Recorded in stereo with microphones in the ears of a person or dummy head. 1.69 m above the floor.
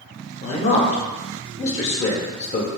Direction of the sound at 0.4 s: 40° left (ahead or behind).